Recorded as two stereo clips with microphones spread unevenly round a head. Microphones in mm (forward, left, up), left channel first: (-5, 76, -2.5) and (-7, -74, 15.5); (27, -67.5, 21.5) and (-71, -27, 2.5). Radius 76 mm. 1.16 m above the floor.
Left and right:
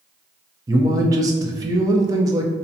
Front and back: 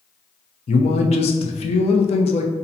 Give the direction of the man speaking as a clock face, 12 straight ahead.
1 o'clock.